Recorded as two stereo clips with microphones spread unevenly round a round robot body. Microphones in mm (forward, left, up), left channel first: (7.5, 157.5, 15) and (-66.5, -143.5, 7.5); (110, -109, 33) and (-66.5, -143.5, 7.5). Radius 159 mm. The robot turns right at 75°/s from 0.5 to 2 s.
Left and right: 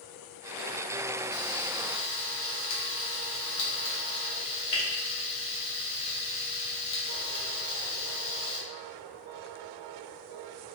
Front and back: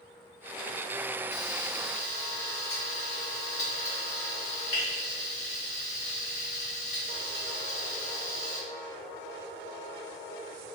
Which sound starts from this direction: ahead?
Frying, at 1.3 s.